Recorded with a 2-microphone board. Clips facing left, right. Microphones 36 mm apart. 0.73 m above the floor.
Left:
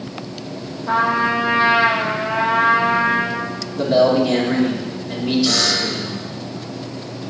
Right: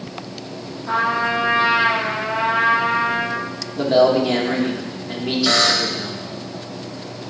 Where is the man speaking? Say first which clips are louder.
Even; 20° right (ahead or behind), 2 m.